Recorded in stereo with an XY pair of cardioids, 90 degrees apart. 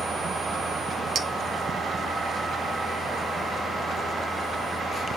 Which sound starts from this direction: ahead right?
A clink, at 1.1 s.